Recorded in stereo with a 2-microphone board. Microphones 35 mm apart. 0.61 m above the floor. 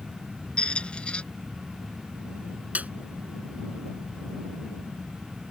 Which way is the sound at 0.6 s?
30° left (ahead or behind).